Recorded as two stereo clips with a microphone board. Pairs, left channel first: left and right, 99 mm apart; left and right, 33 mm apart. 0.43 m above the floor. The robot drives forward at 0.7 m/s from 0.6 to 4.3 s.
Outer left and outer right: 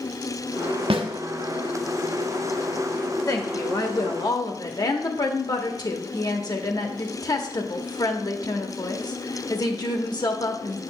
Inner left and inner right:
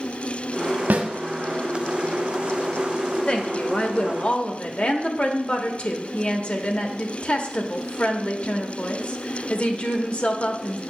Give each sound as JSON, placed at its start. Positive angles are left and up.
{"t": 0.9, "sound": "a snare drum", "side_deg": -70, "distance_m": 1.1}
{"t": 3.3, "sound": "a woman speaking", "side_deg": 35, "distance_m": 1.2}